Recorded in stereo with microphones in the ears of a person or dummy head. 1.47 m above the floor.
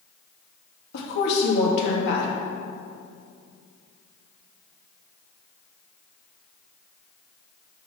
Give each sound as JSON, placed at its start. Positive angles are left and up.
{"t": 0.9, "sound": "a woman speaking", "side_deg": 50, "distance_m": 2.0}